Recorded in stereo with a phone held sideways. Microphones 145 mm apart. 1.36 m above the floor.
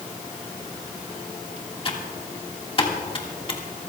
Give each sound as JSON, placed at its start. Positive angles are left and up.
{"t": 1.9, "sound": "typing on a keyboard", "side_deg": 40, "distance_m": 1.9}